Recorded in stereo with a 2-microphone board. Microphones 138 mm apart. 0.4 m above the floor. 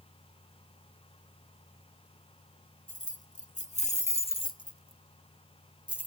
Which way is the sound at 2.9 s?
65° left (ahead or behind).